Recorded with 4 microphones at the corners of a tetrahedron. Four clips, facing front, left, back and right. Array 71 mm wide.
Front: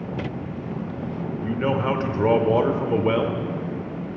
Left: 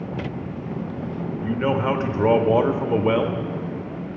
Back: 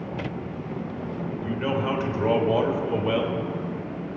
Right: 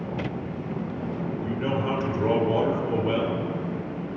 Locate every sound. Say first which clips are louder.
1.4 s a man speaking: left 6 dB, front 3 dB; 65° left, 1.1 m